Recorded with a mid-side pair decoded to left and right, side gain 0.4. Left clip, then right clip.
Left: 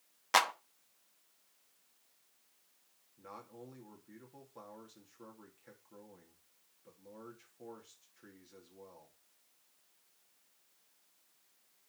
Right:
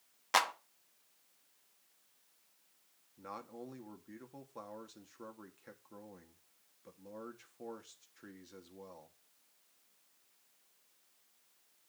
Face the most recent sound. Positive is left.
turn(degrees=-40)